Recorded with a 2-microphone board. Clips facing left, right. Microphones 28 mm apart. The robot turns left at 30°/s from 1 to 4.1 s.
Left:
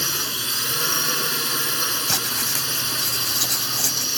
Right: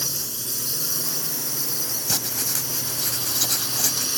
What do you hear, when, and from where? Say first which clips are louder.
0.0 s a drone: left 6 dB; 115° left; by 4.2 s 20° left
2.1 s writing: left 4 dB; 50° left; by 4.1 s 10° right